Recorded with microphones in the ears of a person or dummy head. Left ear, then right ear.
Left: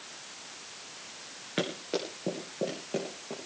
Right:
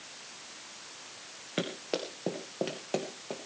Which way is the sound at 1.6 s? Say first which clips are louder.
Left 2 dB; 5° right (ahead or behind).